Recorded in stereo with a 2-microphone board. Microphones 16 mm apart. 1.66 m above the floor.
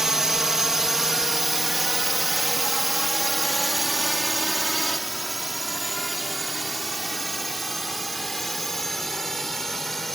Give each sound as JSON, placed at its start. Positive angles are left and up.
{"t": 0.0, "sound": "a drone", "side_deg": -25}